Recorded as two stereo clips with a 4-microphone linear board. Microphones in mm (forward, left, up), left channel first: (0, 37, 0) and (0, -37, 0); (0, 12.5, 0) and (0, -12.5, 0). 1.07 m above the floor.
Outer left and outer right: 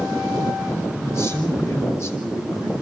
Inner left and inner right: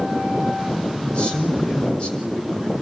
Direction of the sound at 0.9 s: 40° left (ahead or behind).